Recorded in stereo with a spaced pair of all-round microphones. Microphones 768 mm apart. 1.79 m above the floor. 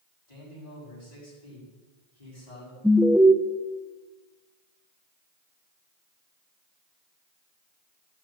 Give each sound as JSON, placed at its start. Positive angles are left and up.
{"t": 0.3, "sound": "a man speaking", "side_deg": 60, "distance_m": 6.5}
{"t": 2.8, "sound": "an alarm", "side_deg": 0, "distance_m": 1.0}